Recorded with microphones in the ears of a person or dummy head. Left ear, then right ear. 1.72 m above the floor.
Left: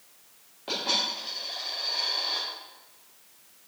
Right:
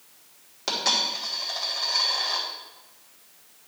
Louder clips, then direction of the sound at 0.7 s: Right 3 dB; 70° right (ahead or behind).